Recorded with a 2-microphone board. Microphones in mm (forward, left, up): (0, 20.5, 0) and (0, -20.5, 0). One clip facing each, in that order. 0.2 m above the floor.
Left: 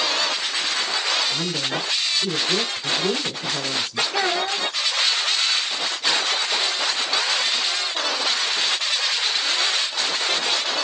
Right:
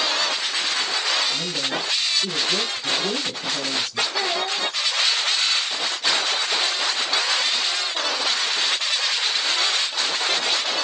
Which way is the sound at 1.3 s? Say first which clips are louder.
Left 1 dB; 40° left (ahead or behind).